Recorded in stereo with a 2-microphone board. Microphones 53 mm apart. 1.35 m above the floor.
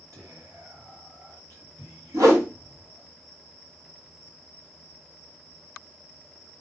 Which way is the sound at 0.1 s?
75° right (ahead or behind).